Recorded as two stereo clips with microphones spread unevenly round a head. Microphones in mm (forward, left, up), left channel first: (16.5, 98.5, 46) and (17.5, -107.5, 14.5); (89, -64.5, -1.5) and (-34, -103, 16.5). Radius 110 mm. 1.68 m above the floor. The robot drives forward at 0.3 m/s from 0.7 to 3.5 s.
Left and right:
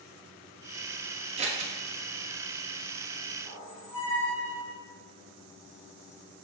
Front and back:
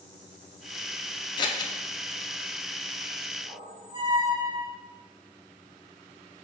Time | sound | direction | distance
1.4 | scissors | 30° right | 0.5 m
3.5 | a squeak | 175° left | 1.7 m